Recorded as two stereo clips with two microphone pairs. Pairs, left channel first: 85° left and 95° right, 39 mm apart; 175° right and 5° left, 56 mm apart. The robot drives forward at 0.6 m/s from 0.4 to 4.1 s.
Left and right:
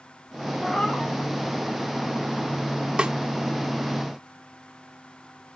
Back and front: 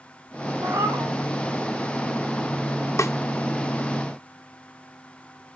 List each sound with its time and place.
0.6 s a cat meowing: 10° left, 3.5 m; by 1.2 s 15° left, 3.5 m
3.0 s a snare drum: 160° right, 1.2 m